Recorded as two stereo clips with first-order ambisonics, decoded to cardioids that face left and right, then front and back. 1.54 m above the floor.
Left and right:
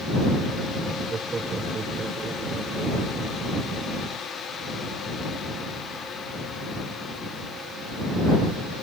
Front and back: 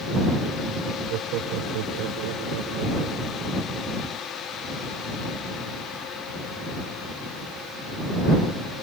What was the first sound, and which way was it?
Laughter, 160° right.